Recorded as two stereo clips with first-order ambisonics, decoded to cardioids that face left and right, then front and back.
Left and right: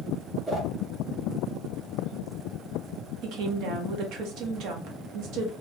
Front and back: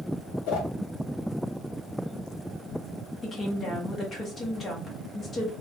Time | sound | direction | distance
0.5 | a whoosh | 20° right | 1.2 m
3.2 | a woman speaking | 70° right | 0.9 m